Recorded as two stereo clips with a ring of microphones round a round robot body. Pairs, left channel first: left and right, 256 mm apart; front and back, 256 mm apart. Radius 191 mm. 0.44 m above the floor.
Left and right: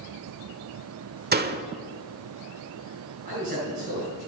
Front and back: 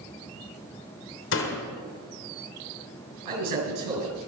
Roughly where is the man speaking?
Behind.